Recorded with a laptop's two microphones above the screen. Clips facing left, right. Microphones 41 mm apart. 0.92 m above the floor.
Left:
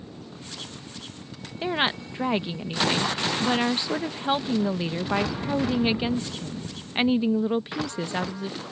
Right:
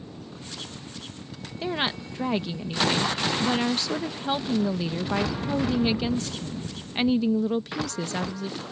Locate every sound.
1.6 s a woman speaking: 20° left (ahead or behind)